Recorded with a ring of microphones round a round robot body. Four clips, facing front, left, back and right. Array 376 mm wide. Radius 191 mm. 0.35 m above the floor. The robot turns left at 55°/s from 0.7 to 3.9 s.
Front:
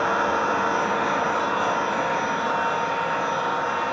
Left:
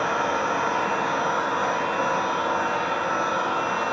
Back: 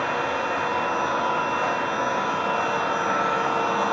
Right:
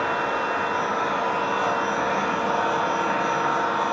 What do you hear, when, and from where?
0.0 s an engine running: 20° left, 5.5 m; by 3.9 s 155° right, 5.5 m